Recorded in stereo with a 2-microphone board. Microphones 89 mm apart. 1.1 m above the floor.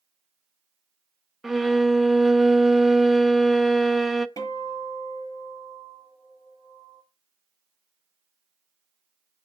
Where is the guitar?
40° left (ahead or behind), 7.5 m.